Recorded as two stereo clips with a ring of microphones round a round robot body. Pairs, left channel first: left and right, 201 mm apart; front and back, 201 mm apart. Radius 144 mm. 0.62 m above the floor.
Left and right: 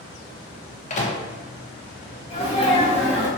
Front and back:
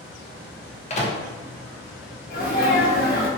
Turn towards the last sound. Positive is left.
turn(degrees=35)